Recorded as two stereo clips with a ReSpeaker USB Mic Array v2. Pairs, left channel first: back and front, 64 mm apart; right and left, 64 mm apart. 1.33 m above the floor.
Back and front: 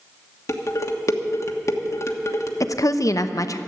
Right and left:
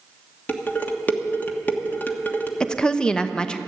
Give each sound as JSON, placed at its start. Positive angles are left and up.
{"t": 0.5, "sound": "dishes clattering", "azimuth_deg": -150, "distance_m": 1.3}
{"t": 2.6, "sound": "a woman speaking", "azimuth_deg": -165, "distance_m": 0.8}